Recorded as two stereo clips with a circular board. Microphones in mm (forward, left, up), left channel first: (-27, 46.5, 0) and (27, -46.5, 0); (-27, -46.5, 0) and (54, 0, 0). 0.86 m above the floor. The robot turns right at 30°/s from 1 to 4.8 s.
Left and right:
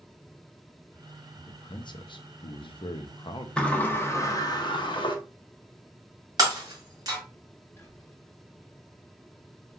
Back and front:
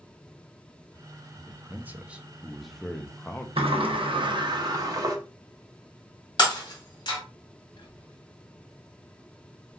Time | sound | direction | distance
1.5 | a man speaking | 85° left | 0.6 m
3.6 | a sliding door | 40° left | 0.7 m
6.4 | breaking glass | 110° right | 1.7 m
7.8 | whispering | 170° right | 1.0 m